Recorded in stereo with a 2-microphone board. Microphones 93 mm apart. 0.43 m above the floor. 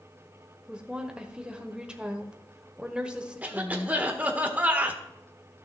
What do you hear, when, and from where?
0.7 s a woman speaking: 10° right (ahead or behind), 1.3 m
3.4 s a cough: 15° right (ahead or behind), 1.4 m